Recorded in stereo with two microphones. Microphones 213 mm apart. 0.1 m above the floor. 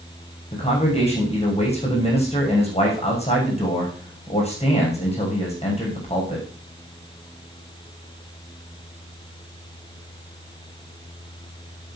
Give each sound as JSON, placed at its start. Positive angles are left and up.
{"t": 0.5, "sound": "a man speaking", "side_deg": 30, "distance_m": 6.5}